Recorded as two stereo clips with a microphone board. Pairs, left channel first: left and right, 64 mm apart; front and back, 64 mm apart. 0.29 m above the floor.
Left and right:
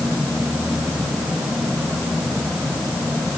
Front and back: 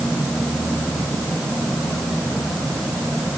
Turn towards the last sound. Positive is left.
No sound to turn to.